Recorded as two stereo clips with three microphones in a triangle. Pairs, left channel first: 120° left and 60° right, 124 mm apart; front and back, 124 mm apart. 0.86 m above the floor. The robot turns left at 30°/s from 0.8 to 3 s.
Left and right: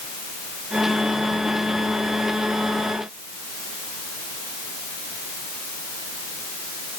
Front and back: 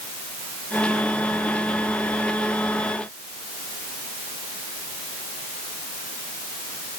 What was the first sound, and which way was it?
Only background noise.